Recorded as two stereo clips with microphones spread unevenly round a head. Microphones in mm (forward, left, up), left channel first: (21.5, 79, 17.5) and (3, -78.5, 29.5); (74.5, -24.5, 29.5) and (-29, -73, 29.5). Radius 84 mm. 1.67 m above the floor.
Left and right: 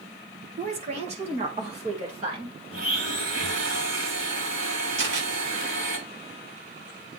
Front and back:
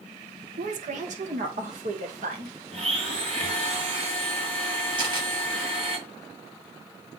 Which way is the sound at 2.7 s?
125° right.